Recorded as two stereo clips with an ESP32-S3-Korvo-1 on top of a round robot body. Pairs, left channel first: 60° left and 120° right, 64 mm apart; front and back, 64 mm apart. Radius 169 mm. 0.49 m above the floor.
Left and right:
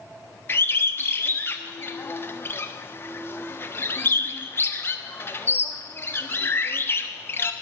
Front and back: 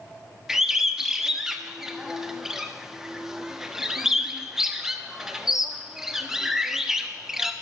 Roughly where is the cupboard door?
No cupboard door in this recording.